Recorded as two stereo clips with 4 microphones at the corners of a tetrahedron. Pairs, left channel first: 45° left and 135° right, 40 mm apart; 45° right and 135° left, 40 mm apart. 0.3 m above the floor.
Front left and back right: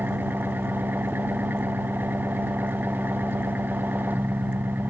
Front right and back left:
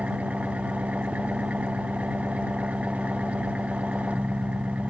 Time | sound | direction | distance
0.0 | an engine running | 170° right | ?